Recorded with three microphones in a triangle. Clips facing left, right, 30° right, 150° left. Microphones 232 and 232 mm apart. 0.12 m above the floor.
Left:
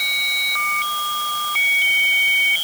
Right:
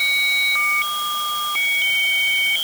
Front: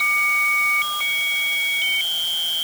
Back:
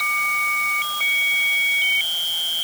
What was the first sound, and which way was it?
Only background noise.